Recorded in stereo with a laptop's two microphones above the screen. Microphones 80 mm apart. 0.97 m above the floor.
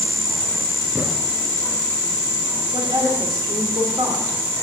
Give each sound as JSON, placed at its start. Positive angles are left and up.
{"t": 0.9, "sound": "a thud", "side_deg": -5, "distance_m": 6.5}
{"t": 2.7, "sound": "a woman speaking", "side_deg": -65, "distance_m": 3.0}